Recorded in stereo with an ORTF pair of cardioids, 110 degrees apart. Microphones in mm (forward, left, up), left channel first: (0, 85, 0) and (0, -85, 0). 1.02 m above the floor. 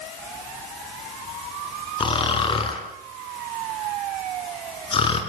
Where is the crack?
No crack in this recording.